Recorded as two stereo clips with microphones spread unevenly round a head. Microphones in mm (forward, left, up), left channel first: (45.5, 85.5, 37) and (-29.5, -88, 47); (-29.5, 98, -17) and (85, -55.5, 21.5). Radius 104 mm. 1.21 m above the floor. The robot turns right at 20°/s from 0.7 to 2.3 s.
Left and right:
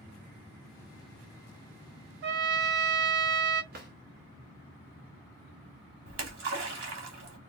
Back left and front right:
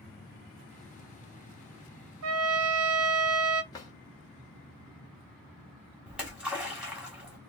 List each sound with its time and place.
2.2 s a trumpet: 85° right, 0.7 m; by 3.6 s 80° right, 0.7 m
3.7 s a drawer: 155° right, 1.1 m
6.1 s a splash: 135° right, 1.3 m